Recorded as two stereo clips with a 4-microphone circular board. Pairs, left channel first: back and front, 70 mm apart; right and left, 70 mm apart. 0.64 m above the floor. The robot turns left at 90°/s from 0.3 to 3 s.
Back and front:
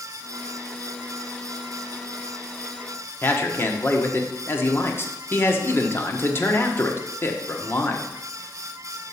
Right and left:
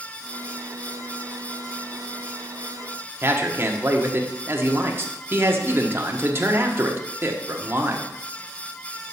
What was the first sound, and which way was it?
A man speaking, 135° left.